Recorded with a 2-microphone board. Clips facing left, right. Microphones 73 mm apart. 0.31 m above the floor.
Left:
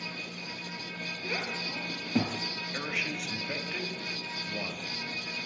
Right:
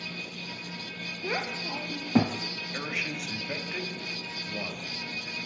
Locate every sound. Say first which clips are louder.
1.2 s a child speaking: right 4 dB; 40° right (ahead or behind), 0.9 m
2.7 s a man speaking: right 1 dB; 10° right (ahead or behind), 1.3 m